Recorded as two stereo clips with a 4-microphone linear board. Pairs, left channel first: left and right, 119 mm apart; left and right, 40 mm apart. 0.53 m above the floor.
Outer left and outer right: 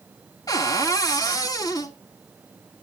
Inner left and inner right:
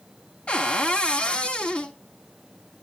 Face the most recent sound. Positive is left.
turn(degrees=30)  # may be behind; listen again after turning